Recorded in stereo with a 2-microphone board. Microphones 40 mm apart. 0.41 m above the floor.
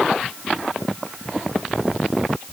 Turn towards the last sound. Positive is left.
No sound to turn to.